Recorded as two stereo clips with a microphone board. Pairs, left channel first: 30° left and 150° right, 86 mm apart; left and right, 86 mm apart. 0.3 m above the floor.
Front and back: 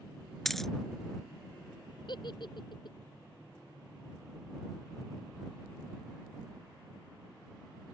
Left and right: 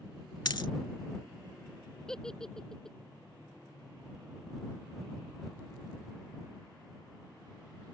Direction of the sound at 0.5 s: 115° left.